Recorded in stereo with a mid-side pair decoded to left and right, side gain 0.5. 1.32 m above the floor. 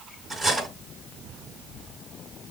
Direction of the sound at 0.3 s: 10° left.